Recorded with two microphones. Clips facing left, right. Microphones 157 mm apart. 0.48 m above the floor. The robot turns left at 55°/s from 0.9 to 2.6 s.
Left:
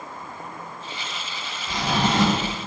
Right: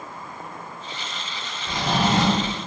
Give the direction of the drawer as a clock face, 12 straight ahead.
3 o'clock.